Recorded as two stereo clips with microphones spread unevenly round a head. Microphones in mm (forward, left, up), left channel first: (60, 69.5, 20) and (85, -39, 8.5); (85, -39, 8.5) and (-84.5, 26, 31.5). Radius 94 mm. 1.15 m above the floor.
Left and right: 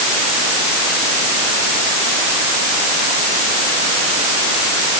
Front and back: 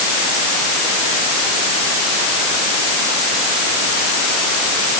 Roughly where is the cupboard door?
No cupboard door in this recording.